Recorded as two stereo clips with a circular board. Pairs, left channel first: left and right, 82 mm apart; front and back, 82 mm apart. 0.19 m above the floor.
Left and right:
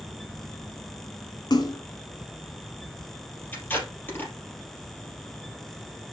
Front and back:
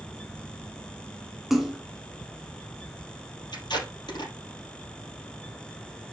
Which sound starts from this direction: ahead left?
Tape being pulled, at 3.5 s.